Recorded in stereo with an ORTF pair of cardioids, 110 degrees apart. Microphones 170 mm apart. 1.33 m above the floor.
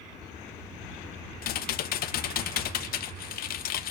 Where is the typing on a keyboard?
60° left, 1.1 m.